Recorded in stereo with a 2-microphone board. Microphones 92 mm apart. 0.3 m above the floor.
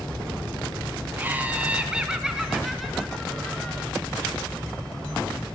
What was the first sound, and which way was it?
Laughter, 20° right (ahead or behind).